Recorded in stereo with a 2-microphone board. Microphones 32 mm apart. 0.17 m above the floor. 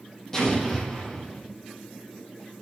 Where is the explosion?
20° left (ahead or behind), 5.5 m.